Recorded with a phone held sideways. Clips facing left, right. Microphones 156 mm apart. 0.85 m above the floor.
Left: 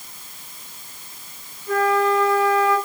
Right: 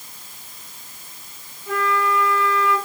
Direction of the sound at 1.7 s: 80° right.